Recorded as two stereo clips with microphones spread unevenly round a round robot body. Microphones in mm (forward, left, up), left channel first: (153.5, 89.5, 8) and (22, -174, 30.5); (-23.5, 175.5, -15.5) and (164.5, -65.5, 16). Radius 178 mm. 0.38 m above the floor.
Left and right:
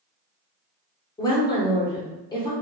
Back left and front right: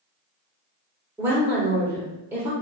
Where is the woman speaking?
35° left, 0.9 m.